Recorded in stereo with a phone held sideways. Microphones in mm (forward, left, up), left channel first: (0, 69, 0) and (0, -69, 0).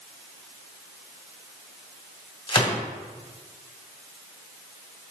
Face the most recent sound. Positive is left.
turn(degrees=35)  # may be behind; listen again after turning